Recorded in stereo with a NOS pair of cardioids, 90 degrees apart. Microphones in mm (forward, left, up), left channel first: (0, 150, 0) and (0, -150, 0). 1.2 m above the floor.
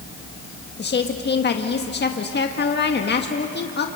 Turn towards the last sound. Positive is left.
turn(degrees=35)